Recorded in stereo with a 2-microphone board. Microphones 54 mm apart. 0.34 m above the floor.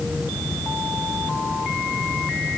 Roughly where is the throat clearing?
No throat clearing in this recording.